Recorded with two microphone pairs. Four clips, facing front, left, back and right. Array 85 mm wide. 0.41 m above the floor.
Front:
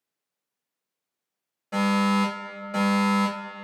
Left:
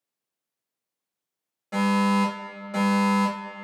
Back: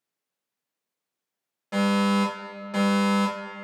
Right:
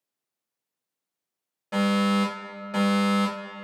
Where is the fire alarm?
140° right, 1.8 m.